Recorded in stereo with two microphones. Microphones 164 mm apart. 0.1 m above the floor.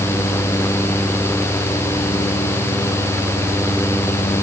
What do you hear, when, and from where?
Only background noise.